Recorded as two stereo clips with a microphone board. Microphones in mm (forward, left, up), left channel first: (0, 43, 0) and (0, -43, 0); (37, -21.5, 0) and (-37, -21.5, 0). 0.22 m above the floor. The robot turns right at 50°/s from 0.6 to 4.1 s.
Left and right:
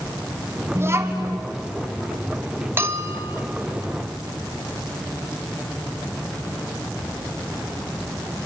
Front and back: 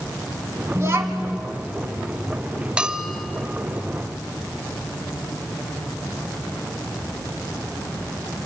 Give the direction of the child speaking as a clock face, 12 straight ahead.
5 o'clock.